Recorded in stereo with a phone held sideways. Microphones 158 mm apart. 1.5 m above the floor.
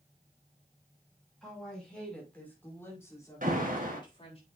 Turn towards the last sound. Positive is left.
turn(degrees=-60)  # may be behind; listen again after turning